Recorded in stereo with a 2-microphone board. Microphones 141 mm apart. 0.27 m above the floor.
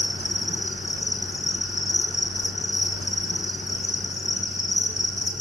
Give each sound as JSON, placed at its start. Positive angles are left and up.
{"t": 0.0, "sound": "an insect", "side_deg": 55, "distance_m": 3.0}